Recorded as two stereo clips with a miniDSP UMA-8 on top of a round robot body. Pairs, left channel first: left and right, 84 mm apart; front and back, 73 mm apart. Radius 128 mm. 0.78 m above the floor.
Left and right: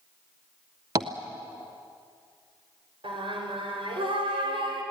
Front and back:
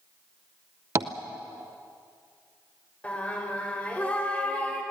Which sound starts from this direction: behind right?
Tapping, at 0.9 s.